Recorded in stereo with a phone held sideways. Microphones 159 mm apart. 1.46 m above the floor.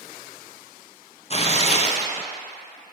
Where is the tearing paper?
40° left (ahead or behind), 0.6 m.